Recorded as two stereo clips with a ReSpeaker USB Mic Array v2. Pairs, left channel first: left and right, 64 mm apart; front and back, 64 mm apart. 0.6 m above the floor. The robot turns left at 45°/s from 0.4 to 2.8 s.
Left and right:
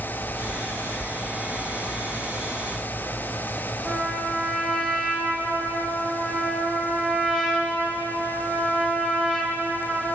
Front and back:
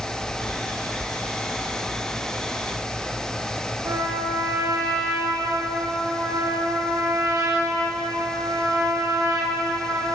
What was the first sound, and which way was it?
A trumpet, straight behind.